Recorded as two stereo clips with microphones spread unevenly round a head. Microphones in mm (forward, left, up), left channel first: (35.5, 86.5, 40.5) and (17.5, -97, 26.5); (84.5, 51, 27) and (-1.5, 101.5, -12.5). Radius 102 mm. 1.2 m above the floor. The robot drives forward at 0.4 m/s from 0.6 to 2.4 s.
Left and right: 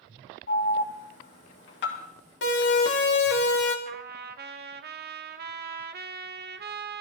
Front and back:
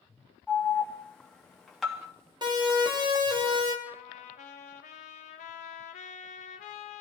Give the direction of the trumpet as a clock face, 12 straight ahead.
2 o'clock.